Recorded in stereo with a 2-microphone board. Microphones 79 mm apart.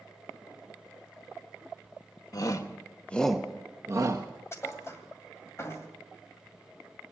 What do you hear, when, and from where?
2.3 s a shout: 50° left (ahead or behind), 1.1 m; by 4.3 s 50° right (ahead or behind), 1.1 m
4.5 s a thud: 35° left (ahead or behind), 2 m